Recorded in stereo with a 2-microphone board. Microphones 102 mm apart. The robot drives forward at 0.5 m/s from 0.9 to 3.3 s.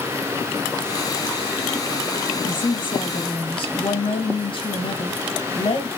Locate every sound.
2.4 s a woman speaking: 55° left (ahead or behind), 4 m